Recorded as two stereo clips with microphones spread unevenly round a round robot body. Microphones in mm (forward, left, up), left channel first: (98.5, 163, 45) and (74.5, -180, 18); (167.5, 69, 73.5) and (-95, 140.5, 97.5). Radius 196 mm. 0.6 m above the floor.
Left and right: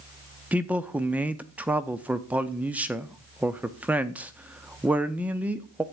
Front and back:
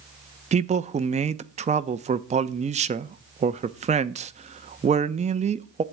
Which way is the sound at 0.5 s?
160° right.